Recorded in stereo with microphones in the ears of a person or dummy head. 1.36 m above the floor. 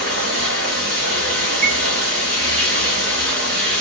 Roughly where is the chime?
Right.